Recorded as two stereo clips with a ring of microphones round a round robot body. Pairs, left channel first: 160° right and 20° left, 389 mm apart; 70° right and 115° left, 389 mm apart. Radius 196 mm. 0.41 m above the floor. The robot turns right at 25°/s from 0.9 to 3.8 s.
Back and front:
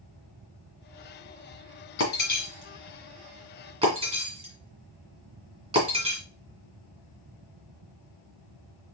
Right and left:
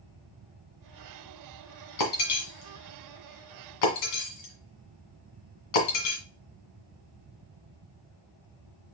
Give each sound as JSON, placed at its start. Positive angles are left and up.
{"t": 2.0, "sound": "breaking glass", "azimuth_deg": -100, "distance_m": 1.9}